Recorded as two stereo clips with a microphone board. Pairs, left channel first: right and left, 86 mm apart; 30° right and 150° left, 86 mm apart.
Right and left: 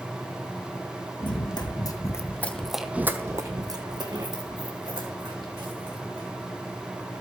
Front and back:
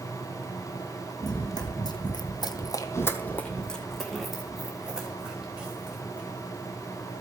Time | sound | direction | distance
1.2 | running footsteps | 70° right | 1.7 m